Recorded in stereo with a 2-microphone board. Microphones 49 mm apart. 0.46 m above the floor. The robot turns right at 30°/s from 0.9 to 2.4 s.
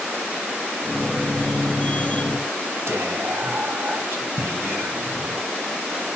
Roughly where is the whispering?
Right.